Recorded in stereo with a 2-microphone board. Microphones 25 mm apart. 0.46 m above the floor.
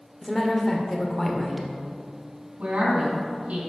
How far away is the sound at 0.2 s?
About 0.9 m.